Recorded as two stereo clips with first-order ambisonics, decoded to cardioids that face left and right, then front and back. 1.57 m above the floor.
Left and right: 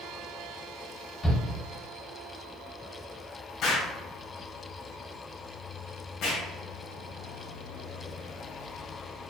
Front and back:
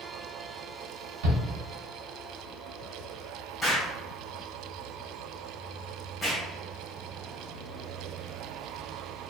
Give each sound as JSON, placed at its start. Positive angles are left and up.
{"t": 1.2, "sound": "a shout", "azimuth_deg": 165, "distance_m": 1.5}
{"t": 3.6, "sound": "an explosion", "azimuth_deg": 85, "distance_m": 1.7}